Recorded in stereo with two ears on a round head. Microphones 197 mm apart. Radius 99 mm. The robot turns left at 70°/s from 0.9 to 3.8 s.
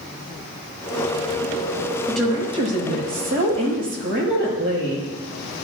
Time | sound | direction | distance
2.1 | a woman speaking | 10° left | 6 m